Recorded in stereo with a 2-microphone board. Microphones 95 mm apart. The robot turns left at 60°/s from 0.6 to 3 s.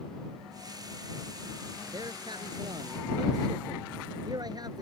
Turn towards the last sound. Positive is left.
turn(degrees=-120)